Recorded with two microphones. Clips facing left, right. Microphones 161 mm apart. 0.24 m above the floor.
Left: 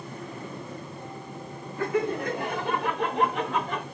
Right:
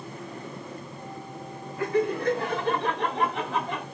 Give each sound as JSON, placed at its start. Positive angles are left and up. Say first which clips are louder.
{"t": 1.8, "sound": "laughter", "louder": "right 1 dB", "side_deg": 30, "distance_m": 2.0}